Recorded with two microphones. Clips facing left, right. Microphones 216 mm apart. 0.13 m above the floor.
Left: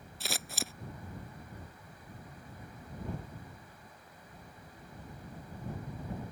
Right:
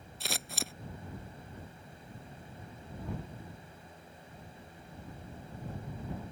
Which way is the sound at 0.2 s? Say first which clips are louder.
Even; centre (ahead or behind).